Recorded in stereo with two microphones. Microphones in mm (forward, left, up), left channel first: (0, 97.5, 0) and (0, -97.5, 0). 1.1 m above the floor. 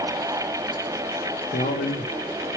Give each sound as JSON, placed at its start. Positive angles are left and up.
{"t": 1.5, "sound": "a man speaking", "side_deg": 50, "distance_m": 0.6}